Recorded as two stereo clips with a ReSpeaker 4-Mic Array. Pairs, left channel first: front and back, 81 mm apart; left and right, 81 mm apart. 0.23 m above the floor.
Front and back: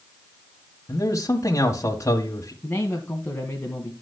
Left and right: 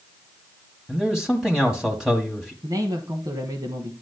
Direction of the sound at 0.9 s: 5° right.